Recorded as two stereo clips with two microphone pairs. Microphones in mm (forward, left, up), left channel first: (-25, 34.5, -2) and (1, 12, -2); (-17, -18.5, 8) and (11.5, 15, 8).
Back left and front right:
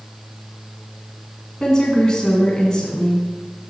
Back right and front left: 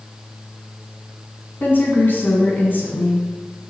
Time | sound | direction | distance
1.6 | a woman speaking | 155° right | 2.5 m